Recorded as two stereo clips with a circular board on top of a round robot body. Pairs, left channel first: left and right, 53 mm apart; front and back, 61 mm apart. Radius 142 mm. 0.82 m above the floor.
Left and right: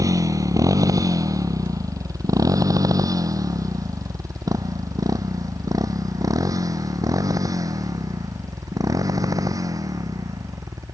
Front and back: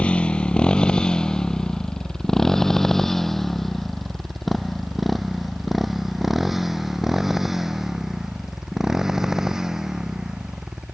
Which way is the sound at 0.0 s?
70° right.